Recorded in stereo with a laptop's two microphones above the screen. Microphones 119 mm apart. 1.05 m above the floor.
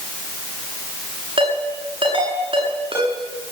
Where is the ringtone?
50° right (ahead or behind), 8 m.